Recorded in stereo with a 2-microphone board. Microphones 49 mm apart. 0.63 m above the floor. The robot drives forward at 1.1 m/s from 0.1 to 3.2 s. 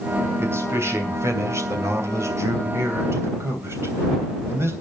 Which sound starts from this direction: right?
A man speaking, at 0.4 s.